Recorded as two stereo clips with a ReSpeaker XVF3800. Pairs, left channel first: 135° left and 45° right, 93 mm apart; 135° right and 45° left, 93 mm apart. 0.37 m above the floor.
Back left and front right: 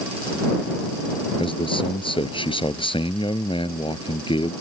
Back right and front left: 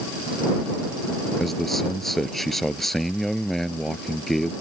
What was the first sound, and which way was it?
A man speaking, 135° left.